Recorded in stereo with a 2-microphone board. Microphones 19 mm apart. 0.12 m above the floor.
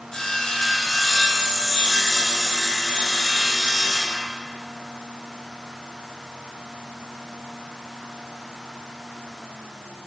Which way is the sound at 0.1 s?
30° left (ahead or behind).